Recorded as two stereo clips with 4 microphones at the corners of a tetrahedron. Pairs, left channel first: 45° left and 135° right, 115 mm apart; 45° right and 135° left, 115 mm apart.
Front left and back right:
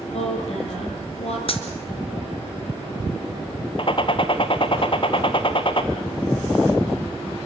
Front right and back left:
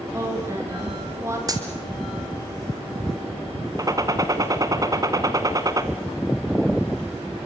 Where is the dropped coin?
80° left, 2.5 m.